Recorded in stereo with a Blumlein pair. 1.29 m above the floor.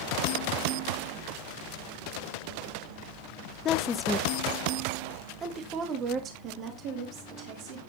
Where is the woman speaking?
30° left, 0.8 m; by 7.8 s 35° right, 3.5 m.